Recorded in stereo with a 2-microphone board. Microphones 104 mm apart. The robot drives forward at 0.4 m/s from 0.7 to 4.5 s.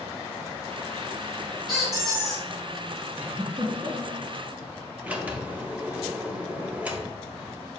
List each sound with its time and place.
1.7 s a squeak: 5° right (ahead or behind), 1.5 m
3.2 s a giggle: 60° right (ahead or behind), 0.6 m; by 4.2 s 35° right (ahead or behind), 0.9 m
5.0 s a sliding door: 10° right (ahead or behind), 0.5 m